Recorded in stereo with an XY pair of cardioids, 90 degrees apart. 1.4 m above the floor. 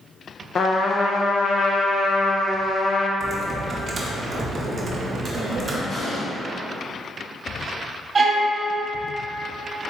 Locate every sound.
0.6 s a trumpet: 50° left, 0.6 m
3.2 s typing on a keyboard: 45° right, 0.9 m
5.9 s an explosion: 60° left, 1.8 m
8.2 s a violin: 35° right, 1.1 m